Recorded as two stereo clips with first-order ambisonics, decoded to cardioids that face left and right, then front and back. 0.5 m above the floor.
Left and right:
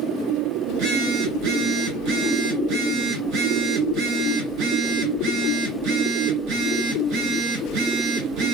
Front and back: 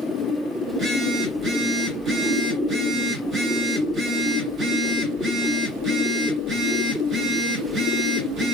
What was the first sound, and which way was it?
A phone buzzing, 115° right.